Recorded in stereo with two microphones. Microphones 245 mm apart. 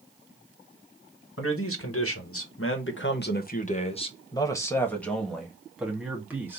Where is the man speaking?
60° left (ahead or behind), 1.2 m; by 6.6 s 10° right (ahead or behind), 2 m.